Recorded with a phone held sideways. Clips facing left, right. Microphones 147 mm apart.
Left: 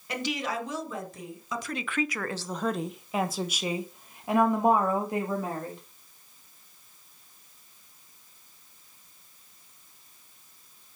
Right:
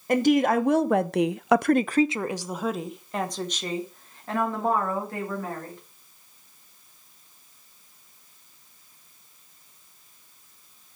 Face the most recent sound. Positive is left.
turn(degrees=20)  # may be behind; listen again after turning